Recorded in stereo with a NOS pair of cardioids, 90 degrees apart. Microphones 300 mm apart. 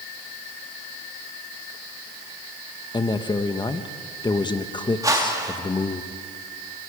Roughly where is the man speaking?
Ahead.